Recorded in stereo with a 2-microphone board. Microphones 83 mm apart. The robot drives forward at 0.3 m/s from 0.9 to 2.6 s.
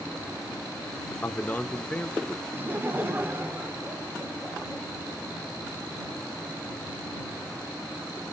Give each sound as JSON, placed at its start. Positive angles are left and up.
{"t": 1.2, "sound": "a man speaking", "side_deg": 25, "distance_m": 0.9}
{"t": 2.5, "sound": "laughter", "side_deg": -25, "distance_m": 0.8}